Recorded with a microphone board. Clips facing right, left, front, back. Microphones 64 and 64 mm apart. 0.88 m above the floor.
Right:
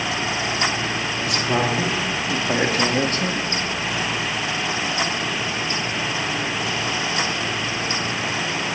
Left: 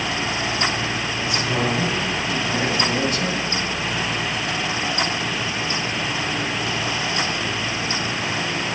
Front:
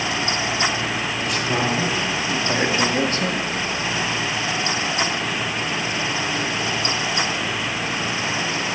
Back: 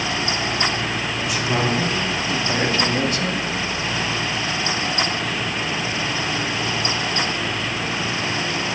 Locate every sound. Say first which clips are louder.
1.3 s a man speaking: right 1 dB, back 1 dB; 95° right, 3.5 m; by 3.4 s 20° right, 1.1 m